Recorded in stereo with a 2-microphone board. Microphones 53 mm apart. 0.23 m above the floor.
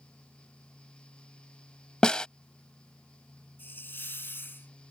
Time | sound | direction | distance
2.0 | a snare drum | 15° left (ahead or behind) | ?
3.6 | a hiss | 45° left (ahead or behind) | ?